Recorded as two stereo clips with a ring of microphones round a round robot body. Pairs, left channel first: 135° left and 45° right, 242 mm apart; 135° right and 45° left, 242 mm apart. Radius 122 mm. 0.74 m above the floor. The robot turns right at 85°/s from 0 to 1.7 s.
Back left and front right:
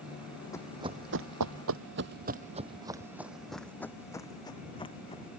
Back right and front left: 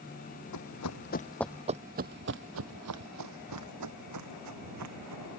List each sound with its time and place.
0.5 s running footsteps: 150° right; by 5.3 s 70° left